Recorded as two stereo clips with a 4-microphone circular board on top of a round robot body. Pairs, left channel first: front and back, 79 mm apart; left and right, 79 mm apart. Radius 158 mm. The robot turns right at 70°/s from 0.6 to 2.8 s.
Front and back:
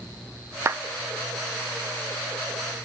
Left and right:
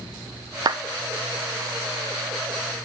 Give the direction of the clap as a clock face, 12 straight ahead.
4 o'clock.